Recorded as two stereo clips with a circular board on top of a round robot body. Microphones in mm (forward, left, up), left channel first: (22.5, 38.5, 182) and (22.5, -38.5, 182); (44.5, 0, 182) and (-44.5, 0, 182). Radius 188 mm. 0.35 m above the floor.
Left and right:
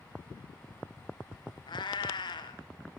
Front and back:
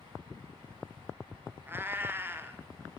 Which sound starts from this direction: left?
A cat meowing, at 1.7 s.